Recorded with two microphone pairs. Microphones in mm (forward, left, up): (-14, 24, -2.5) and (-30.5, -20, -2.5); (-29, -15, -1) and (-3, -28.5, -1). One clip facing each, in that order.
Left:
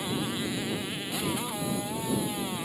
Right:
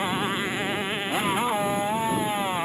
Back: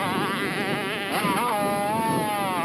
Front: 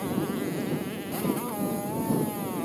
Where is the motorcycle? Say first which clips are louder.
Right 5 dB, back 4 dB; 160° right.